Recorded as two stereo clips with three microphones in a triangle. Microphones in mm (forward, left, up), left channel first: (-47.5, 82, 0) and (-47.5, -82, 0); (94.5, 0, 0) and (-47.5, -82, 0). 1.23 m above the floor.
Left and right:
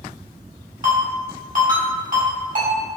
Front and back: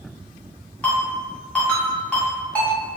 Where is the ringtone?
55° right, 1.8 m.